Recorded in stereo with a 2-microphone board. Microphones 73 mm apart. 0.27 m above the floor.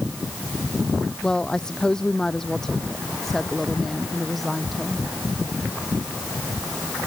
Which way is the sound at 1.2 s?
10° left (ahead or behind).